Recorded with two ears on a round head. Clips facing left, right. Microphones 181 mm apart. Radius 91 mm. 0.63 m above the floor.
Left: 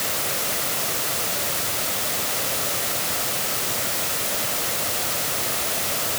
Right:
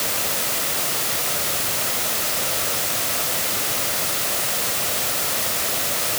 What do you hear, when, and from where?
Only background noise.